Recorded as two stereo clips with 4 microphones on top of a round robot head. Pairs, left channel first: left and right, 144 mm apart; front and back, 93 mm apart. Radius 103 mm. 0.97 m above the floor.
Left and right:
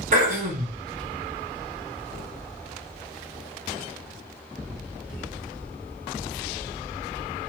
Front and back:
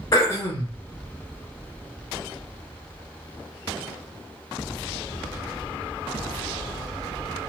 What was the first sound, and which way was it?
Throat clearing, 60° right.